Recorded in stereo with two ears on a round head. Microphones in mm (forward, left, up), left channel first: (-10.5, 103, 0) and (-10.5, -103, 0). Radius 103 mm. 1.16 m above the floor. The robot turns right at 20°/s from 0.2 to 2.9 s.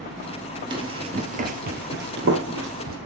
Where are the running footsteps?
20° right (ahead or behind), 1.7 m; by 3.0 s 60° right (ahead or behind), 2.5 m.